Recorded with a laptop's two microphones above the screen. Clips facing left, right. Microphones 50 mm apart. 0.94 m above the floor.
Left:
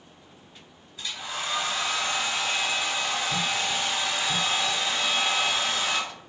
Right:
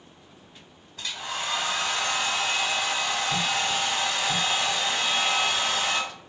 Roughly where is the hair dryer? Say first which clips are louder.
Right 1 dB; right.